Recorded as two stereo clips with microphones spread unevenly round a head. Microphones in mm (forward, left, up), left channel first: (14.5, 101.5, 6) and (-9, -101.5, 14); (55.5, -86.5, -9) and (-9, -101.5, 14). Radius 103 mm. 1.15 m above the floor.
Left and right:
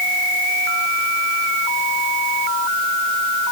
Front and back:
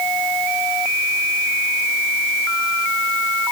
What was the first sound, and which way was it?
Only background noise.